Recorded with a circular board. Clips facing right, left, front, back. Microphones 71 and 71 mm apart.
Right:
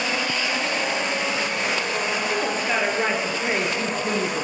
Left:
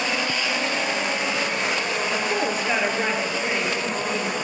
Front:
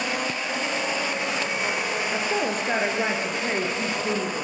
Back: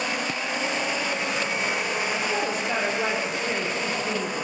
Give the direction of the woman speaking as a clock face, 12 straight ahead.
11 o'clock.